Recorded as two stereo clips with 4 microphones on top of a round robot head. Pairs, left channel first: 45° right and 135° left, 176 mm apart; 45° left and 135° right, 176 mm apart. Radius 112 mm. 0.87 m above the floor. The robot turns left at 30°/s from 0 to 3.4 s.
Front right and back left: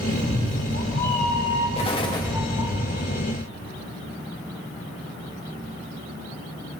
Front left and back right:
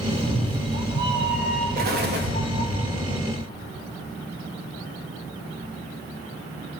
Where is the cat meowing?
75° right, 2.5 m; by 2.8 s 155° right, 2.5 m.